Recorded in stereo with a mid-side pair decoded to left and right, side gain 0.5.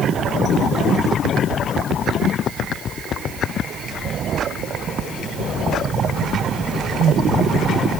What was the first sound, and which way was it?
Only background noise.